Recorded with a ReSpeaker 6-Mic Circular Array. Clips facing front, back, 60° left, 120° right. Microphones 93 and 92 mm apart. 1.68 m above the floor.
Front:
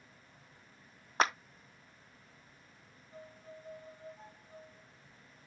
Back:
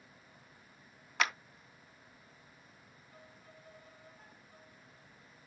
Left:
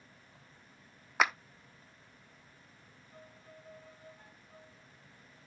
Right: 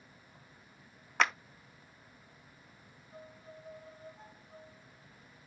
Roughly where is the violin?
Ahead right.